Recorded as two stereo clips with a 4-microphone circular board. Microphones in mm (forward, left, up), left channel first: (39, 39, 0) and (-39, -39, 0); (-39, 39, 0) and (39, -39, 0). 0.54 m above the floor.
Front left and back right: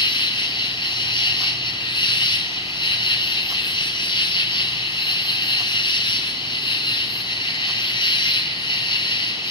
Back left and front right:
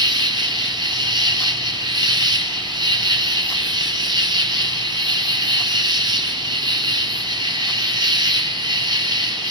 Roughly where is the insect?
Ahead.